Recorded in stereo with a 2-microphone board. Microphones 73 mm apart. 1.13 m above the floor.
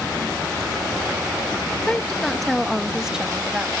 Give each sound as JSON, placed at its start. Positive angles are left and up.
{"t": 1.9, "sound": "a woman speaking", "side_deg": 15}